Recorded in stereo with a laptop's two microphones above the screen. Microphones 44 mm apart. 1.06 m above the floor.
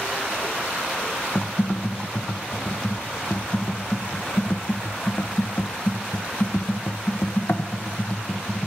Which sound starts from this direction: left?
Typing on a keyboard, at 1.4 s.